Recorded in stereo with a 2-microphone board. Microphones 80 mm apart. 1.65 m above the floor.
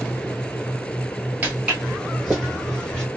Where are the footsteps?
20° right (ahead or behind), 1.7 m; by 3.0 s 10° left (ahead or behind), 2 m.